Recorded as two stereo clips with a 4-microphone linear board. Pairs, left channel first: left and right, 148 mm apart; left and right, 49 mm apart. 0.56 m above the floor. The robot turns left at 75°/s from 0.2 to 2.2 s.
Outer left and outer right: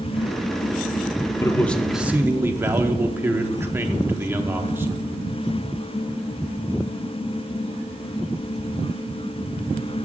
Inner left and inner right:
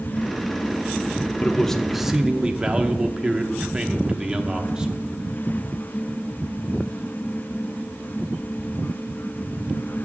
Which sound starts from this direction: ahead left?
A man speaking, at 1.4 s.